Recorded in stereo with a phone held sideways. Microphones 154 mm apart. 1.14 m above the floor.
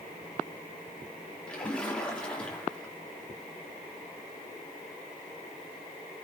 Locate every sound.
1.5 s a splash: 5° left (ahead or behind), 3 m